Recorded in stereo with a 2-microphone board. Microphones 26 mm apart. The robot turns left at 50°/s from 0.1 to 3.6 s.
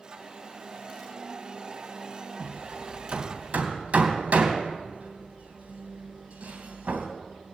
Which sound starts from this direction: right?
Hammering, at 2.4 s.